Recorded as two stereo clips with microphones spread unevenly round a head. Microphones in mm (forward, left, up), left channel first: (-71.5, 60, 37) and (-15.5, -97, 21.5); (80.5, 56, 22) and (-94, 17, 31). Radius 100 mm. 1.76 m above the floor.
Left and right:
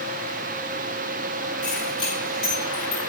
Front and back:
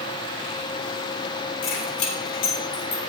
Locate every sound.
1.6 s keys jangling: 25° left, 3.5 m; by 3.0 s 10° left, 3 m